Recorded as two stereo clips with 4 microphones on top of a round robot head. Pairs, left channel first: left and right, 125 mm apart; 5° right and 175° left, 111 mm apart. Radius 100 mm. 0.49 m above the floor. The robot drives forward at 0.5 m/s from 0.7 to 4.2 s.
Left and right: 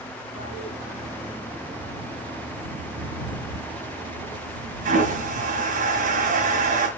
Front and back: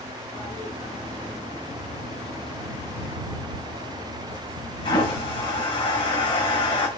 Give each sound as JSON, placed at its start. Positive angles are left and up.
{"t": 0.3, "sound": "a toilet flushing", "azimuth_deg": -30, "distance_m": 3.0}